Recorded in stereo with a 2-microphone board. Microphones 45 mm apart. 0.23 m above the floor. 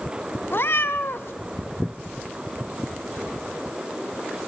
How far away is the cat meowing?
About 0.6 m.